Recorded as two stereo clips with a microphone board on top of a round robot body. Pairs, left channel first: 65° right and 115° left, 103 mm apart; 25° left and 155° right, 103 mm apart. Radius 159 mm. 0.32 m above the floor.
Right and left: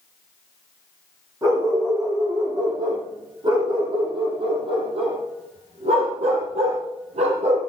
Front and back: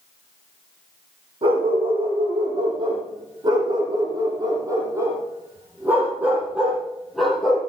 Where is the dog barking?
170° left, 7.5 m; by 7.6 s 110° left, 5.5 m.